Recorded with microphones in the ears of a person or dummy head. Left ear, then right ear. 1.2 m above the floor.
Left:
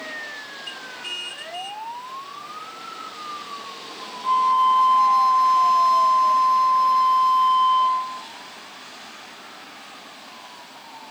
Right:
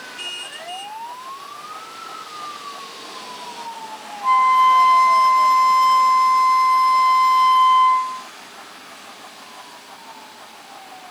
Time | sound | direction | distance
4.2 | a flute | 60° right (ahead or behind) | 1.0 m